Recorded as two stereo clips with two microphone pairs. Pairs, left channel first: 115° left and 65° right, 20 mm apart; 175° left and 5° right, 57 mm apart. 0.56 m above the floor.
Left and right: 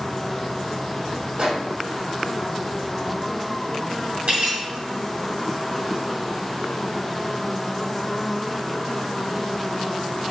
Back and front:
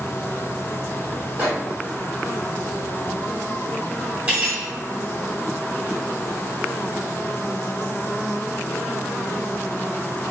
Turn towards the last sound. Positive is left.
turn(degrees=-70)